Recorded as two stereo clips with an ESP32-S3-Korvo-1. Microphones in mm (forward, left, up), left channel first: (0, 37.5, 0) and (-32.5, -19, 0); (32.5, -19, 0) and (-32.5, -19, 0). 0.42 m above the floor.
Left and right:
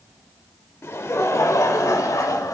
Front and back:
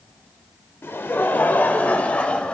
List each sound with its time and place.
0.8 s laughter: 30° left, 1.3 m; by 2.5 s 70° left, 1.8 m